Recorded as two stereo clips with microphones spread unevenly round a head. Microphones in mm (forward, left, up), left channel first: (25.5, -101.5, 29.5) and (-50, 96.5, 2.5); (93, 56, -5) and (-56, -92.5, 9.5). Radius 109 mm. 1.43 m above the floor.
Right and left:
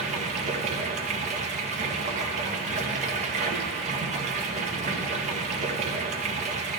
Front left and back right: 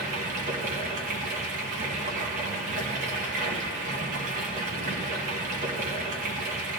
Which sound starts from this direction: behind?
Running water, at 0.0 s.